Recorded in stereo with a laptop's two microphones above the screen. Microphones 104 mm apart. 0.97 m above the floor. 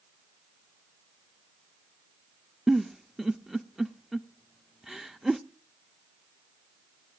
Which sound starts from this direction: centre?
A giggle, at 2.7 s.